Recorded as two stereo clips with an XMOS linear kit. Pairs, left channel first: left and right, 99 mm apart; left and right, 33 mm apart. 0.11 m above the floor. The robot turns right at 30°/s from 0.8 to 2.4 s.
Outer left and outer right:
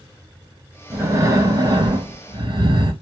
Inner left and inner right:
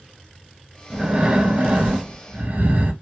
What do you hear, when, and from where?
0.9 s breathing: 140° right, 1.2 m; by 2.9 s 95° right, 1.2 m